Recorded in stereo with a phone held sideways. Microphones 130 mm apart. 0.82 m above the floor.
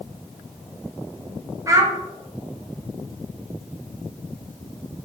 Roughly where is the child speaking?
Right.